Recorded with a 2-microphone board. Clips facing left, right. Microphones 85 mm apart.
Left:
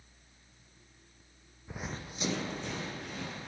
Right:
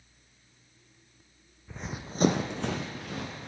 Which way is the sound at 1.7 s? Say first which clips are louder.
Right 2 dB; 20° left (ahead or behind).